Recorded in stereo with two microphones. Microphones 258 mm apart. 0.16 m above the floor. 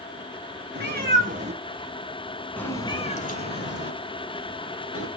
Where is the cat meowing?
40° right (ahead or behind), 1.3 m; by 5.1 s 65° left (ahead or behind), 1.4 m.